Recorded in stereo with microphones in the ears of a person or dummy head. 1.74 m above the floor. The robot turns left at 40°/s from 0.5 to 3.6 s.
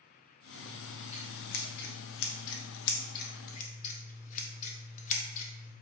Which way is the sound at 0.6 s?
160° left.